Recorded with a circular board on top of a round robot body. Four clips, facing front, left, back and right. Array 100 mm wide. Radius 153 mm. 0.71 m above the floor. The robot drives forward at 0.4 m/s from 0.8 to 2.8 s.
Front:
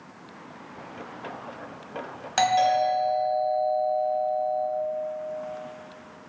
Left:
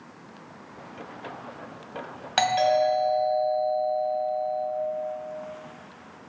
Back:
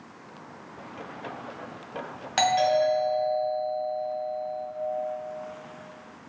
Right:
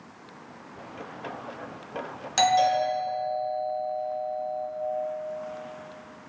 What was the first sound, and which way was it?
A doorbell, 105° left.